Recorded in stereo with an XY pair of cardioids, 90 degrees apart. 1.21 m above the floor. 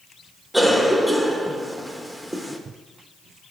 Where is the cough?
5° left, 1.4 m.